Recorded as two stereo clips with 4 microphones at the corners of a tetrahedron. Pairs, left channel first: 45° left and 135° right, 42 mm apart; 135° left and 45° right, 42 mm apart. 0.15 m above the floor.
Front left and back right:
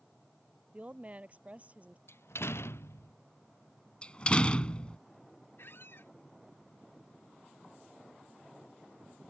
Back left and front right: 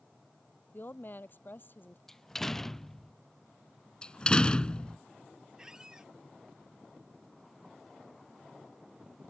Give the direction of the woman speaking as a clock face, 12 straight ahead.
6 o'clock.